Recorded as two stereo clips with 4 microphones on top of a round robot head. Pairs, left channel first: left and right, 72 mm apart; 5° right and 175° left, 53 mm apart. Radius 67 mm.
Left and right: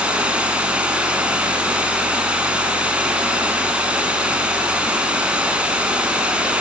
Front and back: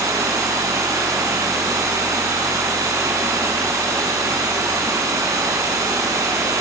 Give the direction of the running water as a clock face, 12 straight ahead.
5 o'clock.